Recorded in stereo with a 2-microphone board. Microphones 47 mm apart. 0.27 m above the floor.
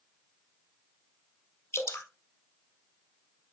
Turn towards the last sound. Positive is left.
turn(degrees=70)  # may be behind; listen again after turning